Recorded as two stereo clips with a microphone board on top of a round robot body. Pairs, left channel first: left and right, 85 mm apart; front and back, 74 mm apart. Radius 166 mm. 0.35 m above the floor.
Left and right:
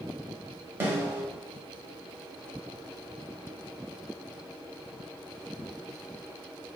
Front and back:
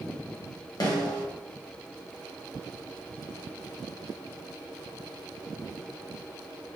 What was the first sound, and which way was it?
A snare drum, 30° right.